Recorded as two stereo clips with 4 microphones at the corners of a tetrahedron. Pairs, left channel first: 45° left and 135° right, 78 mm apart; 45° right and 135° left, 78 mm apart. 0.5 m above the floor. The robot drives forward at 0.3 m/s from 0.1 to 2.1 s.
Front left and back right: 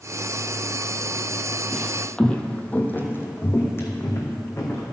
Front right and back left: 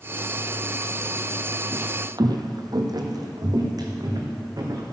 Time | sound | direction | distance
1.7 | footsteps | 130° left | 0.7 m